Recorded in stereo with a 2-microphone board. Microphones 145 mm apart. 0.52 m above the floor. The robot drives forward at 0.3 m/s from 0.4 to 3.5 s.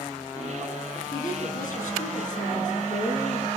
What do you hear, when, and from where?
1.1 s a woman speaking: 65° left (ahead or behind), 5 m; by 3.5 s 60° left (ahead or behind), 5 m